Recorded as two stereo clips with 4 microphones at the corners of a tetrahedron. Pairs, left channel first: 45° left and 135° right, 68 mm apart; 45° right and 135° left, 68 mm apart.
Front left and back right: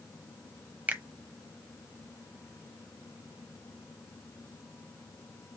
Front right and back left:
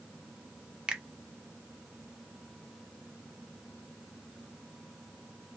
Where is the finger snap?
165° right, 0.8 m.